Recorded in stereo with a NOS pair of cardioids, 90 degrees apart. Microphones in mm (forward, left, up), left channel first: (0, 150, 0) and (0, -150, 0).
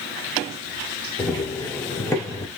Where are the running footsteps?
10° left, 4.5 m.